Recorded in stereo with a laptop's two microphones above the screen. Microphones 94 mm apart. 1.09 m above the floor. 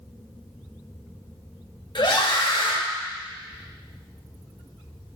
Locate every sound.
1.9 s a scream: 50° left (ahead or behind), 1.5 m